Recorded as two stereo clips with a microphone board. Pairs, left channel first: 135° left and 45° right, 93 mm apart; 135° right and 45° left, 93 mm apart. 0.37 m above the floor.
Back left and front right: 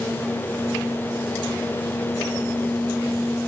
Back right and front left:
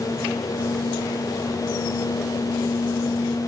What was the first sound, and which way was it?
Only background noise.